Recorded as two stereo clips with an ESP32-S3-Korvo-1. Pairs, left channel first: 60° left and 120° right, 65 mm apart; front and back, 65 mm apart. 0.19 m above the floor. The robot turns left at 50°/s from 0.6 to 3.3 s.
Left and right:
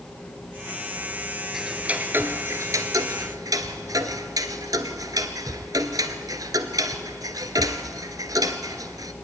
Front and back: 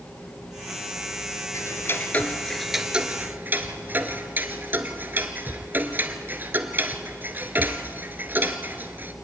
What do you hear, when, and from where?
1.5 s ticking: 35° right, 1.2 m; by 9.1 s 120° right, 1.2 m